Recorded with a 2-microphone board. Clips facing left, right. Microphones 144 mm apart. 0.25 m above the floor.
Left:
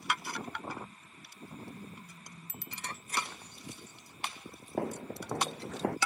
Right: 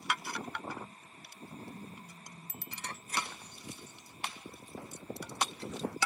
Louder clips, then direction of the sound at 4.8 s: Left 9 dB; 80° left.